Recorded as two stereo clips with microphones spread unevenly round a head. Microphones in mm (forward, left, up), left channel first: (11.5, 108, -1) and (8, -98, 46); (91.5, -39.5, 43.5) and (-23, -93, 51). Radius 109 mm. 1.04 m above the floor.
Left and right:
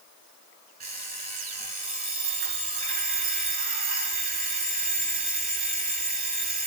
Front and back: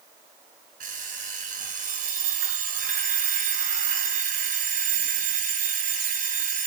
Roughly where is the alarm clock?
Behind right.